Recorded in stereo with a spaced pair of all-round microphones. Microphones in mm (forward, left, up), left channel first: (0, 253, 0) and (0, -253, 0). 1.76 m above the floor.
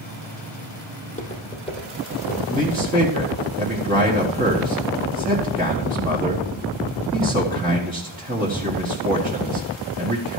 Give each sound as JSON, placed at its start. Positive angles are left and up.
{"t": 1.0, "sound": "footsteps", "side_deg": 15, "distance_m": 3.0}
{"t": 2.5, "sound": "a man speaking", "side_deg": -15, "distance_m": 1.6}